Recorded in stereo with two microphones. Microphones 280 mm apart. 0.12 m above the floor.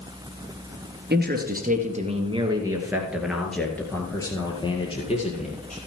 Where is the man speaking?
35° right (ahead or behind), 2 m; by 5.8 s 25° left (ahead or behind), 3 m.